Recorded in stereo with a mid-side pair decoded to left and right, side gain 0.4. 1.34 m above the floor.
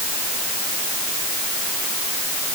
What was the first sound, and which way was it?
Only background noise.